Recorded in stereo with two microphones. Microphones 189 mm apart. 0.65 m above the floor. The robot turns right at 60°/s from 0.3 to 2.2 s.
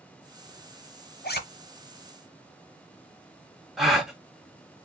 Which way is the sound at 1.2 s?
60° left (ahead or behind).